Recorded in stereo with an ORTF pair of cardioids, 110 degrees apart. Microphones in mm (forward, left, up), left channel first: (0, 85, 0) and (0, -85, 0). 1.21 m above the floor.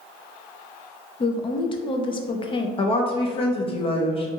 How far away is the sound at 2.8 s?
About 0.8 m.